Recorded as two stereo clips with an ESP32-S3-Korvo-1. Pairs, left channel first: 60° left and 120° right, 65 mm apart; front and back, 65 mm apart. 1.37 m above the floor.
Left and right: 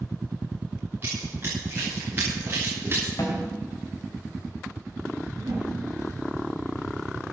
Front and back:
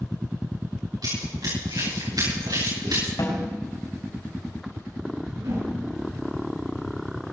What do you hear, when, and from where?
1.0 s running footsteps: 175° right, 10 m
3.2 s a snare drum: 25° left, 4.5 m
5.4 s a whoosh: 155° right, 7.5 m